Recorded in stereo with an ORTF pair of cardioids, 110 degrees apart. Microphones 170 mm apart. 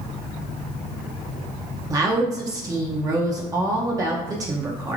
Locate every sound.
1.9 s a woman speaking: 20° right, 0.6 m